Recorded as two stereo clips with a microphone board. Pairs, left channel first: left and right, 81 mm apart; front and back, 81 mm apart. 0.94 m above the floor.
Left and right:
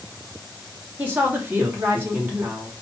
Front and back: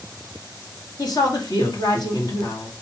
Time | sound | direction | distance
1.0 | a woman speaking | 25° right | 2.5 m